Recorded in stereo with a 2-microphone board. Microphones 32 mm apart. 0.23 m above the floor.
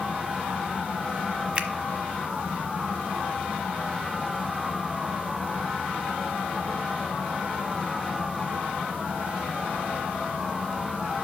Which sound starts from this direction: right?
A finger snap, at 1.6 s.